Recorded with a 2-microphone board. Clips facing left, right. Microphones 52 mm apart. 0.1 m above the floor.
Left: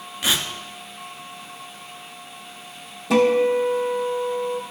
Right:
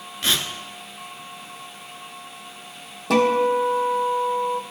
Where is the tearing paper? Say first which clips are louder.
Even; 10° left (ahead or behind), 1.1 m.